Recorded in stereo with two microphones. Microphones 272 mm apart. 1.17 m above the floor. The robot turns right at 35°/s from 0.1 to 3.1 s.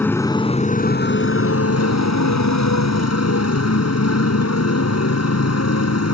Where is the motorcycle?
5° left; by 6.1 s 110° left.